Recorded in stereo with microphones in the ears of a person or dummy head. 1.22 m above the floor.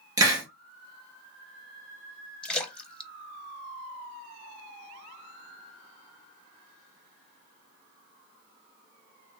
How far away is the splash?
About 0.6 m.